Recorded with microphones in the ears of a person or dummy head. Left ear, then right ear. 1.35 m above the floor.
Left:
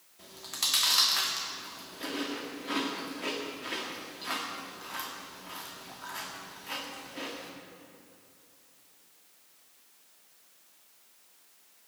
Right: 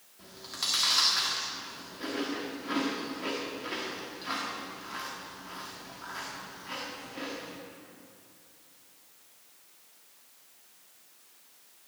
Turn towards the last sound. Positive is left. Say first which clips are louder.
# left 2 dB
turn(degrees=15)  # may be behind; listen again after turning